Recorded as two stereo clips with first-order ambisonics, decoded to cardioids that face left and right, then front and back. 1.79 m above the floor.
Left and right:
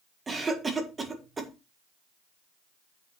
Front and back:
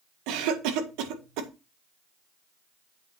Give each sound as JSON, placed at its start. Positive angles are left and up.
{"t": 0.3, "sound": "a cough", "azimuth_deg": -165, "distance_m": 1.7}